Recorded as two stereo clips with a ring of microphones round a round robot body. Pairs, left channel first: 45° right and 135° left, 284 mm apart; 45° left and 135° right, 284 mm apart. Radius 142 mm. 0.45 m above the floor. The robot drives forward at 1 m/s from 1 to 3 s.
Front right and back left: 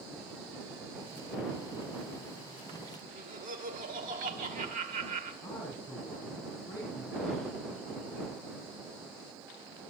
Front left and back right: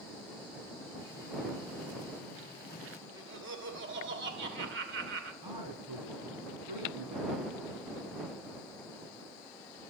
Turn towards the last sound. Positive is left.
turn(degrees=-125)